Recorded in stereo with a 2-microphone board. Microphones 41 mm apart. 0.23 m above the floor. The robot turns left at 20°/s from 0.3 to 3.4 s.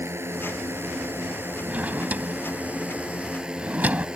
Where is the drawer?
35° right (ahead or behind); by 4.1 s 40° right (ahead or behind).